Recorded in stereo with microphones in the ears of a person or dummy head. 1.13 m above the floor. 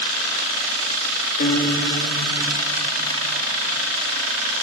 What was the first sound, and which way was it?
A guitar, 50° left (ahead or behind).